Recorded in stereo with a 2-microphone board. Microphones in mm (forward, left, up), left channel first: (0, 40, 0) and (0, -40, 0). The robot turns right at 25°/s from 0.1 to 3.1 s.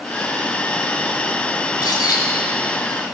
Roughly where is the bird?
Left.